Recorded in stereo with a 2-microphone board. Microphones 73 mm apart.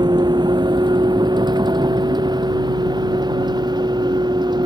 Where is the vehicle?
80° right.